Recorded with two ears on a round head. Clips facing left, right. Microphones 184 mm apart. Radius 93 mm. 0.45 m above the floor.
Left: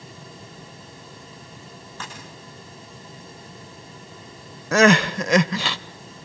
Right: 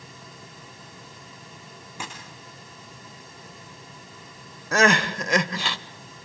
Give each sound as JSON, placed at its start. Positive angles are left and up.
{"t": 2.0, "sound": "a dropped coin", "side_deg": -10, "distance_m": 5.0}
{"t": 4.7, "sound": "crying", "side_deg": 60, "distance_m": 0.5}